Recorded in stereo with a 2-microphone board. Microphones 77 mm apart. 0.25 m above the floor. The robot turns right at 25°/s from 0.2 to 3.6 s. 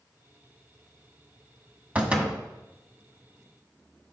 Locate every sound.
1.9 s a door slam: 20° right (ahead or behind), 1.1 m; by 2.4 s 10° right (ahead or behind), 1.1 m